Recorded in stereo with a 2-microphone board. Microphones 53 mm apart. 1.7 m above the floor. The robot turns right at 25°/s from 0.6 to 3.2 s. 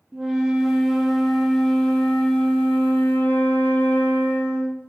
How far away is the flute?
About 0.5 m.